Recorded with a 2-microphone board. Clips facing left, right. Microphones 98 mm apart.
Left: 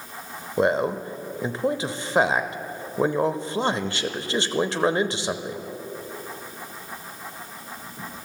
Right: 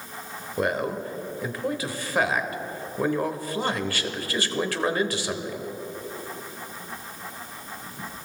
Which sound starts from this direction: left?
A man speaking, at 0.6 s.